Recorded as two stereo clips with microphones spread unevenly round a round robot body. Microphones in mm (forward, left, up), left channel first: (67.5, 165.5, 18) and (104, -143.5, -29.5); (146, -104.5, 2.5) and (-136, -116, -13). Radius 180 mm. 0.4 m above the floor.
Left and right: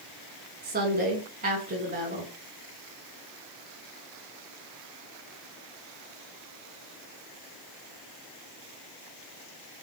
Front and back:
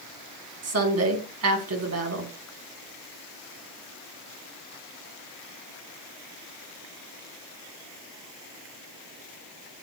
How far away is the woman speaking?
About 4.5 m.